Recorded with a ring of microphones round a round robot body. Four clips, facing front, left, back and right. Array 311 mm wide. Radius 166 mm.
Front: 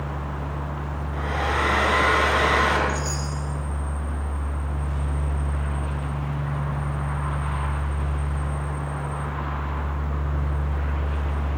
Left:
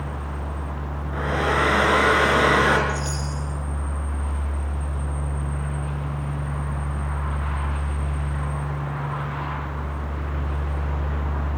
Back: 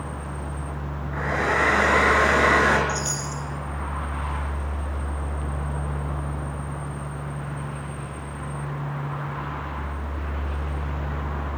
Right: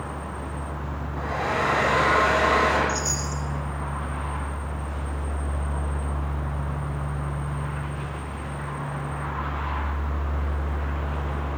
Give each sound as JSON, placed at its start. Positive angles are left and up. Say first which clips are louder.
{"t": 1.1, "sound": "a hair dryer", "louder": "left 4 dB, back 2 dB", "azimuth_deg": 105, "distance_m": 6.0}
{"t": 2.9, "sound": "a chime", "louder": "even, even", "azimuth_deg": -140, "distance_m": 4.0}